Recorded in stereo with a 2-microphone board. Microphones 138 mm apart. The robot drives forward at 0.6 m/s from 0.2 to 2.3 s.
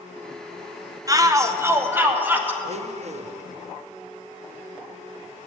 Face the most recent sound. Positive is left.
turn(degrees=-55)  # may be behind; listen again after turning